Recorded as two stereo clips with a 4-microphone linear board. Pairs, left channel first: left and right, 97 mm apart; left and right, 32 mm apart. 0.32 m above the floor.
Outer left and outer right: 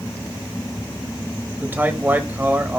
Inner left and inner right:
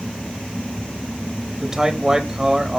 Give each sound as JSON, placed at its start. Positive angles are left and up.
{"t": 1.6, "sound": "a man speaking", "side_deg": -20, "distance_m": 1.0}